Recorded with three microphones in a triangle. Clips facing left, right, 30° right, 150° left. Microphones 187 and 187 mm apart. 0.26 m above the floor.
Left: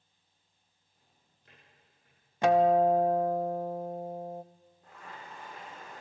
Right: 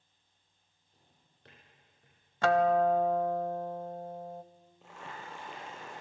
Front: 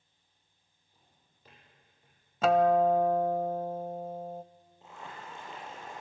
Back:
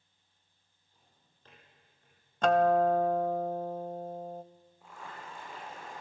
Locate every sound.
0.9 s a drawer: 110° right, 6.5 m
2.4 s a guitar: 45° left, 0.6 m
4.8 s boiling: 100° right, 6 m